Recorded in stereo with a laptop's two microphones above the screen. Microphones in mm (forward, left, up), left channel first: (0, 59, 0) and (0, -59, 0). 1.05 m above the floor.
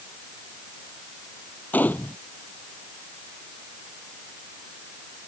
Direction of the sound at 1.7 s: 15° left (ahead or behind).